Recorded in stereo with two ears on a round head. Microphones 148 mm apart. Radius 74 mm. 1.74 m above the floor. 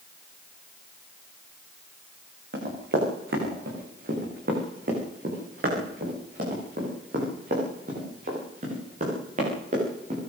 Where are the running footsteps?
60° right (ahead or behind), 9.5 m; by 10.2 s 45° right (ahead or behind), 13 m.